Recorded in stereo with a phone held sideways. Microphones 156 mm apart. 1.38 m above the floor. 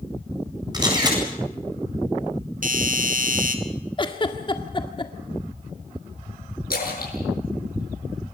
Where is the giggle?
30° left (ahead or behind), 1.9 m.